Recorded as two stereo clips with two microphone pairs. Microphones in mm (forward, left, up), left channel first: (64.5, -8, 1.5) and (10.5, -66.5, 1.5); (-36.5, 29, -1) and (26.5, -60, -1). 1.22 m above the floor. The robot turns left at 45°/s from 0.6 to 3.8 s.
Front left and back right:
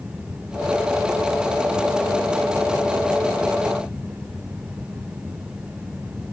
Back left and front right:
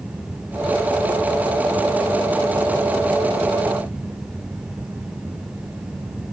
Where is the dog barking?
No dog barking in this recording.